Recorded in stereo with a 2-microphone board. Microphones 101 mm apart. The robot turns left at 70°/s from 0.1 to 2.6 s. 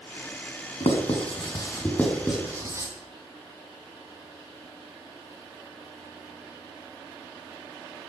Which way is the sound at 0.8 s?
80° left.